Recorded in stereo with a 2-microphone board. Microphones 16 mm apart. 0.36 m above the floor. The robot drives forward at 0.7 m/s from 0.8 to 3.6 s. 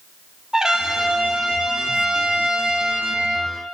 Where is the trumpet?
40° right (ahead or behind), 3 m; by 3.5 s 75° right (ahead or behind), 2 m.